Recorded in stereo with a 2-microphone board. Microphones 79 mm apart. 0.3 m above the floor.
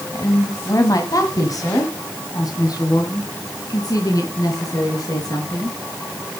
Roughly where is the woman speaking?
Left.